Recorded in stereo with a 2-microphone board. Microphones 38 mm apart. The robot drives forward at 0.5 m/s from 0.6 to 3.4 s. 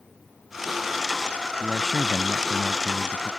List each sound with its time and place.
1.6 s a man speaking: centre (ahead or behind)